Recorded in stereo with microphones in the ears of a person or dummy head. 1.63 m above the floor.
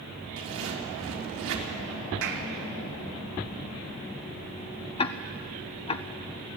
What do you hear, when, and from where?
0.4 s a zipper: 75° right (ahead or behind), 3 m
2.2 s a clap: 60° right (ahead or behind), 1.9 m
5.0 s ticking: 25° left (ahead or behind), 0.6 m